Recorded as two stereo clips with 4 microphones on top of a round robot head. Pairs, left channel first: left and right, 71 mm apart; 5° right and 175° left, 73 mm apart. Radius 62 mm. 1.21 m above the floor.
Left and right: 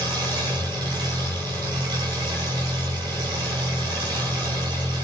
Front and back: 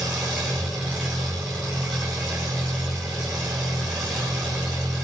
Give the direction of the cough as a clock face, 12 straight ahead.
I don't hear a cough.